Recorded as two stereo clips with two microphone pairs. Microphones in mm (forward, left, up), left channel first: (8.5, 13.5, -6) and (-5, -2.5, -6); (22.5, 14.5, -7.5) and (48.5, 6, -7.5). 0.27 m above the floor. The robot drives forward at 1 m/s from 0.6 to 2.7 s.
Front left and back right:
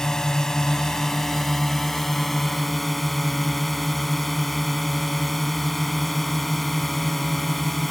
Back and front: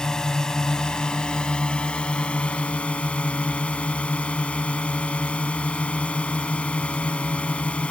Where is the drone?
105° left; by 7.9 s 135° left.